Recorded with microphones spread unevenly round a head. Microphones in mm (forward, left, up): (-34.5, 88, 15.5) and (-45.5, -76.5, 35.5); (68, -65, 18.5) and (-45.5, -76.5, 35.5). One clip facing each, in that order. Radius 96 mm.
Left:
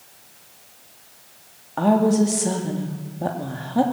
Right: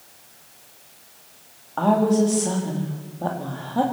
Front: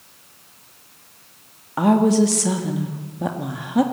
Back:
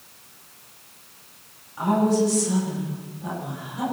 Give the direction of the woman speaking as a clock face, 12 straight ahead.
12 o'clock.